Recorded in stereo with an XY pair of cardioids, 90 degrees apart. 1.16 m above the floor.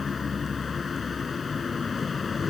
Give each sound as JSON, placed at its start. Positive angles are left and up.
{"t": 0.0, "sound": "a vehicle", "azimuth_deg": 40}